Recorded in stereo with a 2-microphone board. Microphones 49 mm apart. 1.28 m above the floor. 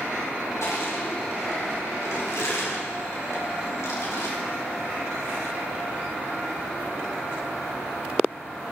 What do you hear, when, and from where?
0.6 s crushing: 85° left, 4 m